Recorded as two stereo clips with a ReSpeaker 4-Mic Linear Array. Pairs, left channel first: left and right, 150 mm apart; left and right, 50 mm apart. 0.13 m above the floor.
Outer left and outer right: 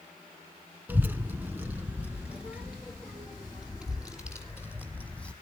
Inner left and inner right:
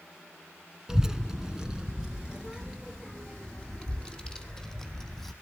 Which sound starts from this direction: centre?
A child speaking, at 0.9 s.